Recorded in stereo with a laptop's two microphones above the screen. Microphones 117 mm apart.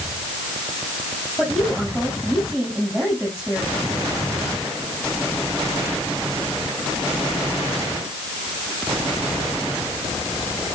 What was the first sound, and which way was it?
A woman speaking, 5° right (ahead or behind).